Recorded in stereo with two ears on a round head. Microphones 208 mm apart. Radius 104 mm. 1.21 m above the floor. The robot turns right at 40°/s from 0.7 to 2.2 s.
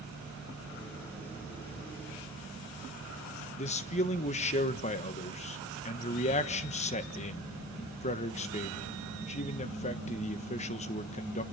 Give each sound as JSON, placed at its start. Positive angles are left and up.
{"t": 3.6, "sound": "a man speaking", "side_deg": 30, "distance_m": 1.2}